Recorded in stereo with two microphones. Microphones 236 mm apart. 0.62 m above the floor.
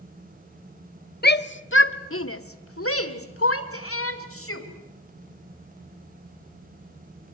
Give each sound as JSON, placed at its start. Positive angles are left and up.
{"t": 1.2, "sound": "a shout", "side_deg": 45, "distance_m": 1.0}